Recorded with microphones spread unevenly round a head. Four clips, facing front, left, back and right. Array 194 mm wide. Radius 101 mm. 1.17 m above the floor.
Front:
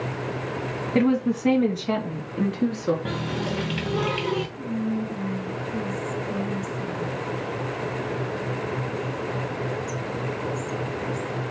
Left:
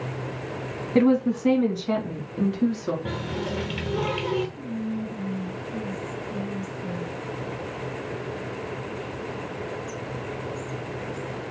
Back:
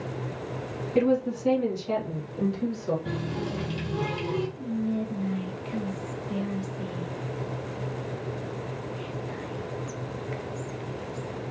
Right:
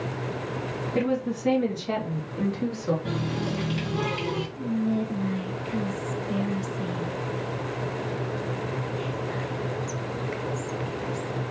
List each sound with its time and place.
0.9 s a woman speaking: 25° left, 1.5 m; by 3.0 s 15° left, 2.5 m
3.0 s a running tap: 15° left, 1.2 m
4.6 s whispering: 85° right, 1.0 m